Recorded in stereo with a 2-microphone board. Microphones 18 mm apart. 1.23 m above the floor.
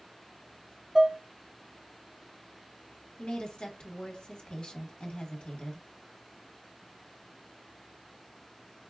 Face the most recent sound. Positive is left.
turn(degrees=60)  # may be behind; listen again after turning